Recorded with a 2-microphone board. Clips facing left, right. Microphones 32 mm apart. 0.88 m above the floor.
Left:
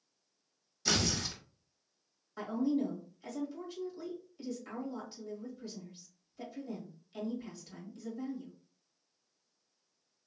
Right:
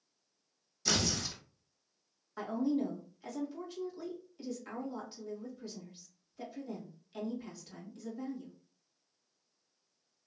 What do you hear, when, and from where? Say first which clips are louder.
0.8 s tearing paper: left 1 dB; 10° left (ahead or behind), 0.8 m
2.4 s a woman speaking: even; 10° right (ahead or behind), 1.7 m